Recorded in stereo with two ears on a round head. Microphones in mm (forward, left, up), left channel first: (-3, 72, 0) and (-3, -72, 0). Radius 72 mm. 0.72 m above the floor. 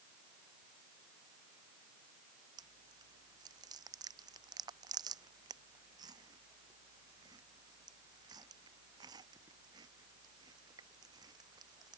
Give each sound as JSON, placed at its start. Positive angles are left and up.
{"t": 2.6, "sound": "chewing", "side_deg": -25}